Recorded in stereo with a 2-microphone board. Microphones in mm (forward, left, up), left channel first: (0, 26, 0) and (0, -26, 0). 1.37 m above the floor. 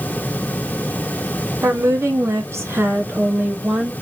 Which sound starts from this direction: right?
A woman speaking, at 1.6 s.